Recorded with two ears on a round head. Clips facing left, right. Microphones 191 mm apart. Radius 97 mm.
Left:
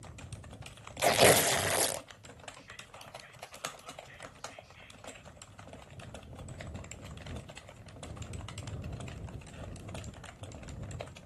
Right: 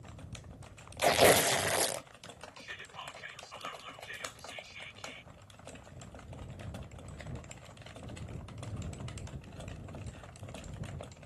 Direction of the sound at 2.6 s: 80° right.